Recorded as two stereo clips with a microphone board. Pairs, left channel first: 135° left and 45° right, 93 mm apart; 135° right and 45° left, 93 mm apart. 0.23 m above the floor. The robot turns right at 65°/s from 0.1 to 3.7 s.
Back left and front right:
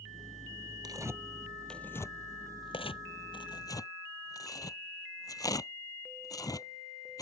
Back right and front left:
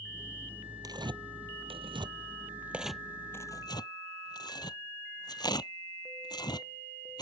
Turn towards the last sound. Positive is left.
turn(degrees=-175)